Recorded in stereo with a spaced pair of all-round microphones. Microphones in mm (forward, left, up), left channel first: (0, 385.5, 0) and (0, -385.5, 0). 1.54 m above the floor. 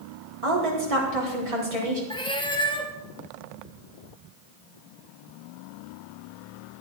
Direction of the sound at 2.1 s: 5° left (ahead or behind).